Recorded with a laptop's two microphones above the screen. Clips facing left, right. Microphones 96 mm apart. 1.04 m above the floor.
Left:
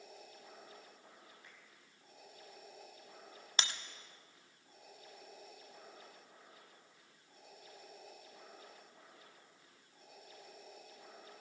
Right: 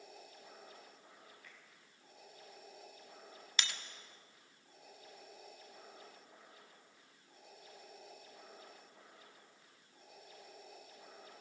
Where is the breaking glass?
35° left (ahead or behind), 1.4 m.